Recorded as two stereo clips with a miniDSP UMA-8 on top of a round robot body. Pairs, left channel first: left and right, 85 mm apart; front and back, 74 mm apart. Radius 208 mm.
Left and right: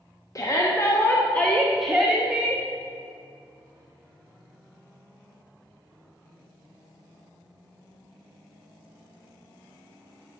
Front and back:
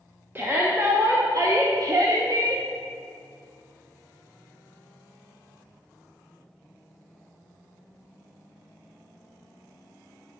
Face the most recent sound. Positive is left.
turn(degrees=-160)